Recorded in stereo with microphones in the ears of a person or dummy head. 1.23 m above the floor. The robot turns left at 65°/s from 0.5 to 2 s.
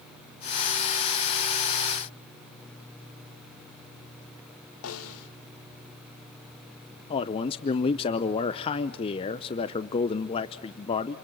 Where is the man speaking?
35° left (ahead or behind), 0.7 m.